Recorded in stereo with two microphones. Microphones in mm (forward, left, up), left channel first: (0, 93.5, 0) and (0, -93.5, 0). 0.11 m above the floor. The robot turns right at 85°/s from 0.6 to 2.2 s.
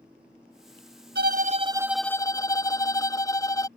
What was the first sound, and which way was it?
A violin, 70° right.